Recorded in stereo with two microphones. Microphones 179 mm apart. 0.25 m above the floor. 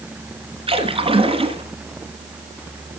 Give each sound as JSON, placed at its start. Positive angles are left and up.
{"t": 0.7, "sound": "a splash", "side_deg": -30, "distance_m": 1.4}